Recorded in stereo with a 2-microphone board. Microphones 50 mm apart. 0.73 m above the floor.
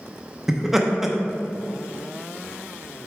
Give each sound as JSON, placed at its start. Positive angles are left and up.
{"t": 0.5, "sound": "laughter", "side_deg": -5, "distance_m": 0.9}